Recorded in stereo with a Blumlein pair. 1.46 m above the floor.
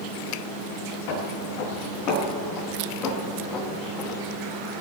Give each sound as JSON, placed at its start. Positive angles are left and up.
{"t": 1.1, "sound": "footsteps", "azimuth_deg": 45, "distance_m": 4.5}